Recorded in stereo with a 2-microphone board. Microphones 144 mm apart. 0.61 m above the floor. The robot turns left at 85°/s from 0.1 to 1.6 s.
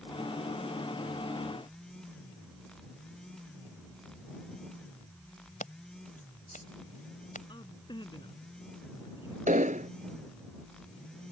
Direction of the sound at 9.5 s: 70° right (ahead or behind).